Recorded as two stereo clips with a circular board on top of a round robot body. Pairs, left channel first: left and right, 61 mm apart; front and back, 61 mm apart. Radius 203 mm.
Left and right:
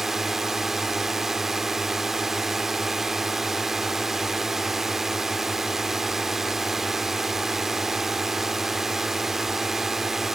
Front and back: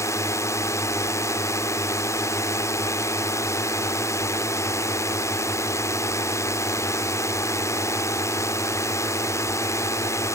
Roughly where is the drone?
Ahead.